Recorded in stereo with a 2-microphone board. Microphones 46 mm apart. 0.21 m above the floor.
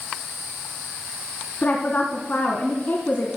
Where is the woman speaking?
40° left (ahead or behind), 1.7 m.